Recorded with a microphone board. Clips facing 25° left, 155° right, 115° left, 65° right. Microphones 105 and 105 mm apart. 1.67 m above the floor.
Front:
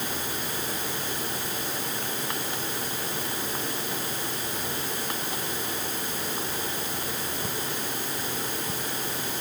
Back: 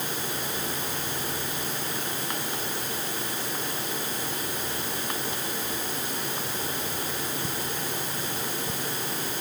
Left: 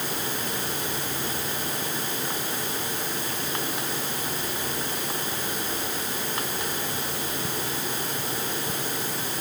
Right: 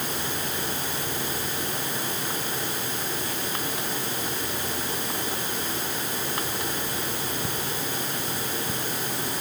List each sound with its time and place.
Only background noise.